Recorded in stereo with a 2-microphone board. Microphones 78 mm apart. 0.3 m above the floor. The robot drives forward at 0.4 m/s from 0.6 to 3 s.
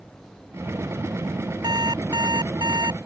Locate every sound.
1.6 s an alarm clock: 65° right (ahead or behind); by 3.0 s 60° right (ahead or behind)